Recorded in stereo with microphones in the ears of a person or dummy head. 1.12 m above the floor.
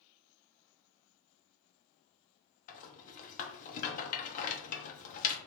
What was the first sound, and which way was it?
A rattle, 35° left (ahead or behind).